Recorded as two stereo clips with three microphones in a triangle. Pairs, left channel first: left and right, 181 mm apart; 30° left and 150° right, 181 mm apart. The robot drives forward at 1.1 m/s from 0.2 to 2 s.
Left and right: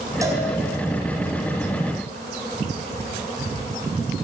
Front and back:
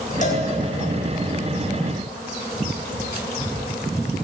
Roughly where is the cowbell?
Ahead.